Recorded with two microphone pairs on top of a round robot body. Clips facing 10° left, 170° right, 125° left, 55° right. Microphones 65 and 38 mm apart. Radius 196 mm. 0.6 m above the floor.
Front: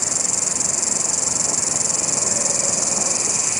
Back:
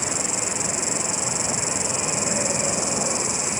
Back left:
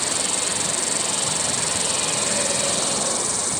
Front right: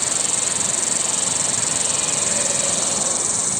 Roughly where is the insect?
Ahead.